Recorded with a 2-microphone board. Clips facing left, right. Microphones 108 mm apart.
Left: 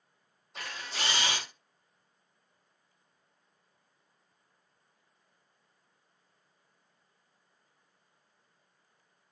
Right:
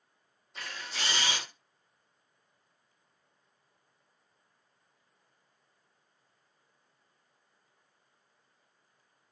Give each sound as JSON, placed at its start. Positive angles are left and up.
{"t": 0.6, "sound": "a camera shutter", "side_deg": 65, "distance_m": 1.1}